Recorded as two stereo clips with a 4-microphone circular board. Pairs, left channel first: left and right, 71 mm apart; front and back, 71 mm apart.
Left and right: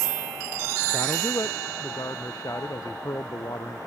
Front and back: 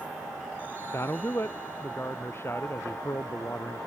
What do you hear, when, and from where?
0.9 s a man speaking: 55° left